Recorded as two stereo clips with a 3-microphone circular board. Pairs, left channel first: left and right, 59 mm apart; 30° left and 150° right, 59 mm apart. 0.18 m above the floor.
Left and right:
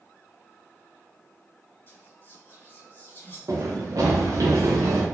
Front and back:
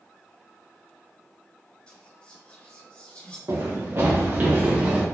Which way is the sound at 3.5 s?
115° right.